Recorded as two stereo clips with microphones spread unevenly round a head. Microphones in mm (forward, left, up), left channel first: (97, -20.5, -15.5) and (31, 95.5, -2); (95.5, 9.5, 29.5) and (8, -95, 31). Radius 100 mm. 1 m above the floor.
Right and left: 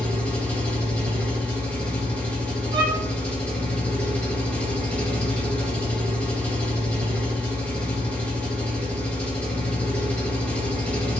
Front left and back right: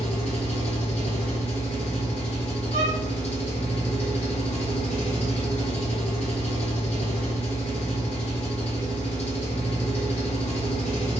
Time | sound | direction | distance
0.0 | an engine running | 15° left | 1.3 m
2.7 | a violin | 175° right | 0.7 m